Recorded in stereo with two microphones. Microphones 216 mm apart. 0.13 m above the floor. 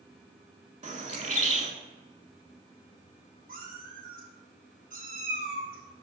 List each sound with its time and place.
0.8 s a bird: 35° right (ahead or behind), 0.5 m
3.5 s a cat meowing: 40° right (ahead or behind), 1.8 m